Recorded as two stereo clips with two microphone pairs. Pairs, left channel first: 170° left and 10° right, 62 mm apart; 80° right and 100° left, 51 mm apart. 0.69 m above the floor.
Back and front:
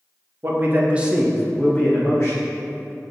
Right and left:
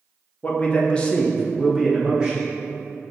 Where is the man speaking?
35° right, 0.7 m; by 2.5 s 165° left, 0.8 m.